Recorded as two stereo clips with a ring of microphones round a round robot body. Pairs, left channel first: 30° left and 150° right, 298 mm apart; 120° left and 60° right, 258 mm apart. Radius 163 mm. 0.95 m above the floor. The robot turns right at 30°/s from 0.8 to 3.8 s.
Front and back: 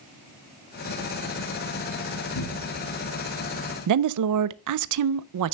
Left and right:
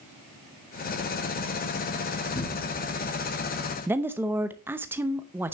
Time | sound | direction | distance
2.4 | a cupboard door | 50° left | 1.9 m
3.9 | a woman speaking | 140° right | 0.6 m